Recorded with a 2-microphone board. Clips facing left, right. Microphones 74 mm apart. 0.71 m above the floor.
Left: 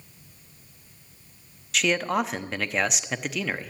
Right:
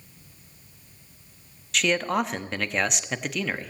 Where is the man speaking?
Centre (ahead or behind), 0.8 m.